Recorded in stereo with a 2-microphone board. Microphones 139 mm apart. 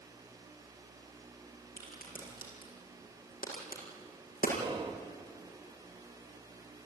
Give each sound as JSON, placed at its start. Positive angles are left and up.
{"t": 1.8, "sound": "a crack", "side_deg": 85, "distance_m": 7.5}
{"t": 4.6, "sound": "whispering", "side_deg": -30, "distance_m": 1.1}